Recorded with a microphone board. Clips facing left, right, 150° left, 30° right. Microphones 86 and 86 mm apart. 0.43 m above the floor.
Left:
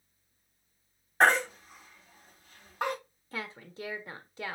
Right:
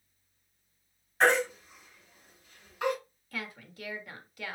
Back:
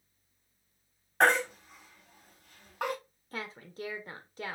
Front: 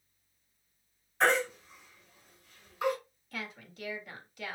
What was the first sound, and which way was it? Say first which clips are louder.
A baby crying: left 1 dB, back 2 dB; 130° left.